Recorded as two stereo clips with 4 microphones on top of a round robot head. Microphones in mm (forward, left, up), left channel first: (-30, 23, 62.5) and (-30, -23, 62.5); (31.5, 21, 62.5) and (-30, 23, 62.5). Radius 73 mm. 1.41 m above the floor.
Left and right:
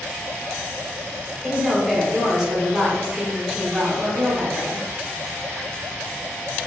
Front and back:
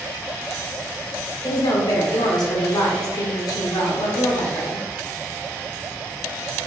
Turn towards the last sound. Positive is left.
turn(degrees=-5)